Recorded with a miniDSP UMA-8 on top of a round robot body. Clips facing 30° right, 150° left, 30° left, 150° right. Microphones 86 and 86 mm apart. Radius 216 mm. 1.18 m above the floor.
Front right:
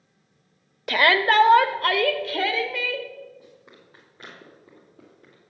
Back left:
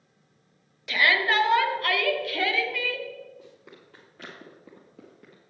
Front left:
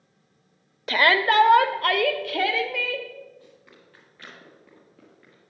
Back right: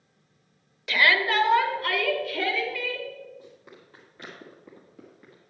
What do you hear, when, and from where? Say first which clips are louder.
0.9 s a shout: front right 4 dB, front left 3 dB; 10° right, 0.9 m; by 3.1 s 30° left, 1.8 m
3.4 s running footsteps: back left 1 dB, back right 3 dB; 140° left, 2.5 m; by 5.4 s 130° left, 1.6 m